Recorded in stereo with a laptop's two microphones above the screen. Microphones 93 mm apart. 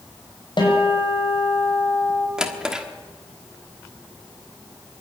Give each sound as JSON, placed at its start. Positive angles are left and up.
{"t": 0.6, "sound": "a guitar", "side_deg": 55, "distance_m": 6.0}
{"t": 2.4, "sound": "a drawer", "side_deg": -5, "distance_m": 1.3}